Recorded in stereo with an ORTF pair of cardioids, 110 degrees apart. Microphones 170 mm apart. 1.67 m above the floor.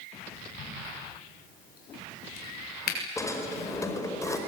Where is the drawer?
20° left, 5 m.